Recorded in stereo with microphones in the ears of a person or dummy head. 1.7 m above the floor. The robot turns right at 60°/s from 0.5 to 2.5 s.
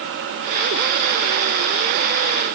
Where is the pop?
No pop in this recording.